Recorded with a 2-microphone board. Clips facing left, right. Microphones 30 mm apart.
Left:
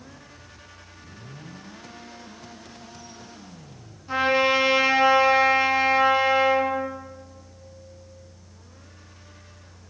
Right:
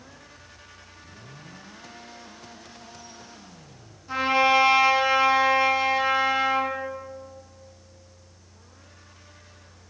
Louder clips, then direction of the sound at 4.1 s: Even; 10° left (ahead or behind).